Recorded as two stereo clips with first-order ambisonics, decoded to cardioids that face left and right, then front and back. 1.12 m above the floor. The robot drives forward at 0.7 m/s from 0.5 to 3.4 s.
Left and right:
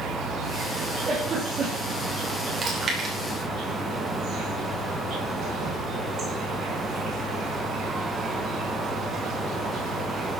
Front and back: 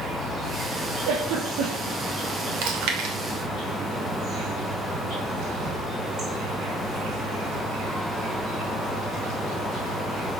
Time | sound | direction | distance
0.0 | an insect | 125° right | 3 m
1.1 | a giggle | 155° right | 6 m
2.6 | chewing | 160° right | 2.5 m